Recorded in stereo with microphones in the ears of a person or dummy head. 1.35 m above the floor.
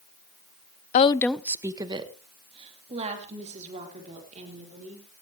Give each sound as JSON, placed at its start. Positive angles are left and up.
{"t": 0.9, "sound": "a woman speaking", "side_deg": 45, "distance_m": 0.6}